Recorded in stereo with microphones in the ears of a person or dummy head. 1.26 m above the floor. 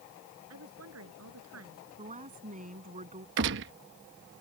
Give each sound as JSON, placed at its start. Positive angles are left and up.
{"t": 0.5, "sound": "a woman speaking", "side_deg": -85}
{"t": 2.0, "sound": "a woman speaking", "side_deg": -35}
{"t": 3.4, "sound": "a gunshot", "side_deg": -65}